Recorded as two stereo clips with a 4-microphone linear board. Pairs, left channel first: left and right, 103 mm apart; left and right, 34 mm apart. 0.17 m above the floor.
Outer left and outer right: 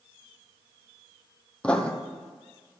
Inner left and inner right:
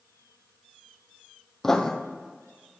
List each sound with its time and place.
1.6 s writing: 10° left (ahead or behind), 1.2 m